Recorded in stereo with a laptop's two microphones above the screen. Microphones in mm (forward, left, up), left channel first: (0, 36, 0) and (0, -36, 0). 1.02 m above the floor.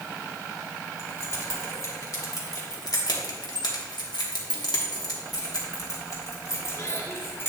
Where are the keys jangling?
40° left (ahead or behind), 2 m; by 7.5 s 35° left (ahead or behind), 2.0 m.